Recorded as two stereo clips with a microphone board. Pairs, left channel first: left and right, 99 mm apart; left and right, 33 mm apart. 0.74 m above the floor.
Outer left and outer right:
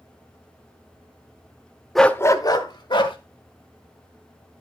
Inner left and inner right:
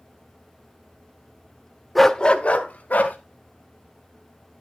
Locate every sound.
1.9 s a dog barking: centre (ahead or behind), 0.7 m; by 3.2 s 60° left (ahead or behind), 2.0 m